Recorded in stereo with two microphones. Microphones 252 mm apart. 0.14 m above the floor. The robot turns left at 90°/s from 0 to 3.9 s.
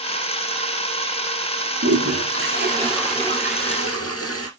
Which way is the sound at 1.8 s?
65° right.